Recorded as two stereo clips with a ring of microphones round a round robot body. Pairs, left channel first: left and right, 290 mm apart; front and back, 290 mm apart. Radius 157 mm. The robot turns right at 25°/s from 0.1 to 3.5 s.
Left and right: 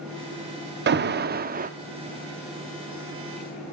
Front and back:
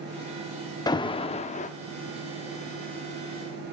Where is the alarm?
70° right, 0.7 m; by 1.7 s 50° right, 0.7 m.